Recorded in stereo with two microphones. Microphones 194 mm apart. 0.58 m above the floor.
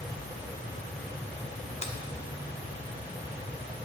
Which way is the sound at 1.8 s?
35° left (ahead or behind).